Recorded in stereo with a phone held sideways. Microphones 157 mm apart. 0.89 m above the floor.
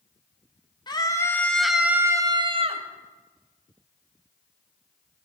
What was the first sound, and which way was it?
A scream, 30° left (ahead or behind).